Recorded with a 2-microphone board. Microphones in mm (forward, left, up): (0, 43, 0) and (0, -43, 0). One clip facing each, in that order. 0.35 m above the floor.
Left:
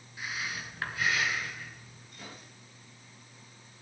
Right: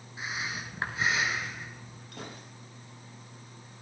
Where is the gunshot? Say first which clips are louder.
Right 4 dB; 65° right (ahead or behind), 8.5 m.